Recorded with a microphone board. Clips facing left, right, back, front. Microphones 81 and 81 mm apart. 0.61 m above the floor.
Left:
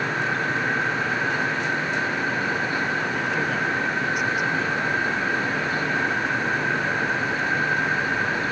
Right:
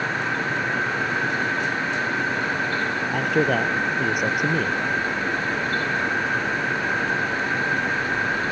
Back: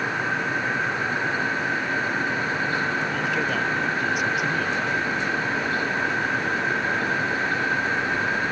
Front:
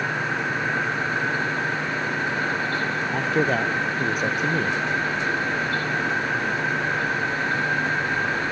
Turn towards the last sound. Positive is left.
turn(degrees=-55)